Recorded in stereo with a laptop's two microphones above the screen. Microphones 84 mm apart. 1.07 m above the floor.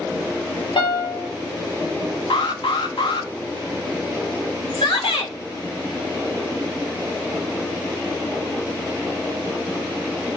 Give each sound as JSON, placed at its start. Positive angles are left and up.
{"t": 0.8, "sound": "a piano", "side_deg": 75, "distance_m": 0.9}
{"t": 2.3, "sound": "an alarm", "side_deg": 70, "distance_m": 0.7}
{"t": 4.7, "sound": "a shout", "side_deg": 80, "distance_m": 1.2}